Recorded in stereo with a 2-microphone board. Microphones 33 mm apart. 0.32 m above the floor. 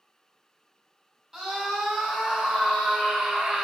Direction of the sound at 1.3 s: 15° right (ahead or behind).